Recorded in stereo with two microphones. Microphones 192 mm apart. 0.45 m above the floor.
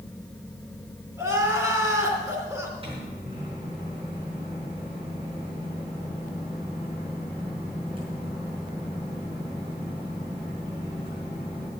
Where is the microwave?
30° right (ahead or behind), 5.5 m.